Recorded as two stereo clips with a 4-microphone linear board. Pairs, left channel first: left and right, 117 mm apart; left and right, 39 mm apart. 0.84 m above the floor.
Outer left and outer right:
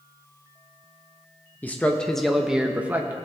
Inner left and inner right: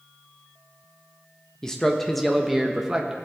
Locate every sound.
1.6 s a man speaking: 15° left (ahead or behind), 0.9 m; by 3.1 s 15° right (ahead or behind), 0.9 m